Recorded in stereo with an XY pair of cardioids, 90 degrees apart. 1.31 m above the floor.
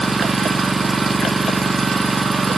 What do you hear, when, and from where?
0.0 s an engine running: 30° right, 1.3 m